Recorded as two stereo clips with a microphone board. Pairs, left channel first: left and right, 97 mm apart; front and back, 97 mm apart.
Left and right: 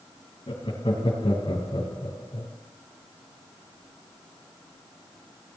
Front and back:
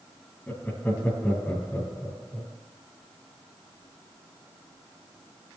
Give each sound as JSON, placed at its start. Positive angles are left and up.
{"t": 0.5, "sound": "laughter", "azimuth_deg": 70, "distance_m": 3.0}